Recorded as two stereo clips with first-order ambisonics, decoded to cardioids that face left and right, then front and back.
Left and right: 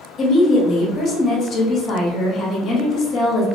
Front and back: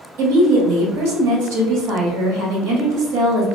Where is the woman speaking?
155° left, 1.1 m.